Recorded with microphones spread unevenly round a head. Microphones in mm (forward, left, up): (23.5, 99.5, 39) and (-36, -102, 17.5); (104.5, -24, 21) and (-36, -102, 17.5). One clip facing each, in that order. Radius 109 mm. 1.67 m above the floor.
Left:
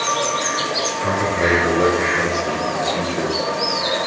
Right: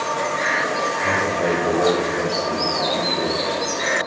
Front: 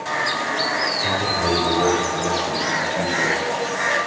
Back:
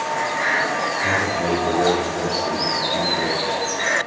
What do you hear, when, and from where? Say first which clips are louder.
1.0 s a man speaking: left 3 dB, even; 135° left, 4.5 m; by 3.4 s 155° left, 5 m